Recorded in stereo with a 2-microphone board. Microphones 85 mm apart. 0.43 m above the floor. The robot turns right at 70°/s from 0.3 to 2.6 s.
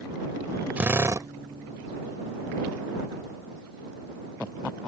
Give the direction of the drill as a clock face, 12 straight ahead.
5 o'clock.